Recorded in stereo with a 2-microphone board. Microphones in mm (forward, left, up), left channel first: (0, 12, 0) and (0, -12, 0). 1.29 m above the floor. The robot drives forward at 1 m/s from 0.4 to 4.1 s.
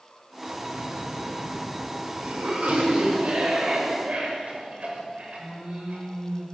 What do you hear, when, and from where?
0.5 s a cough: 85° right, 5.5 m; by 6.5 s 55° right (ahead or behind), 6.5 m